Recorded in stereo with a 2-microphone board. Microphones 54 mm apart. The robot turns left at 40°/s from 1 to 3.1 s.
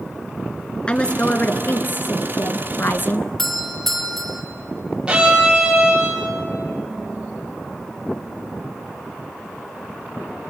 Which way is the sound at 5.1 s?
15° right (ahead or behind).